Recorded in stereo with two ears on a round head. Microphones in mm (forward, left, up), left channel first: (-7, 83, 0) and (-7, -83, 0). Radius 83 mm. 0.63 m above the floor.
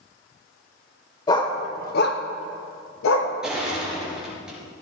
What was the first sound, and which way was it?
A dog barking, 20° left (ahead or behind).